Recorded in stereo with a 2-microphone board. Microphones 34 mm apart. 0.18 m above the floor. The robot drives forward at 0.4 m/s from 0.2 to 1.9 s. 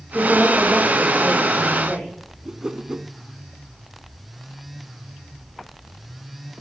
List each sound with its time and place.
0.1 s a woman speaking: centre (ahead or behind), 7.5 m
2.5 s a whoosh: 25° right (ahead or behind), 0.7 m